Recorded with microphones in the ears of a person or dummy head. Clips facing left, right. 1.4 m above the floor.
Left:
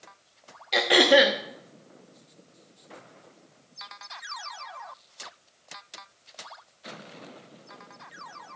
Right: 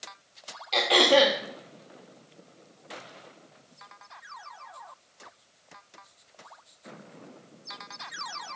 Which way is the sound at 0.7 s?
20° left (ahead or behind).